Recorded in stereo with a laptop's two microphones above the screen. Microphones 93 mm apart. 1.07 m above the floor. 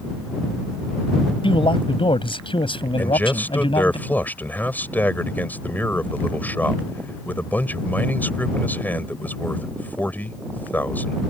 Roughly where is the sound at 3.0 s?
Left.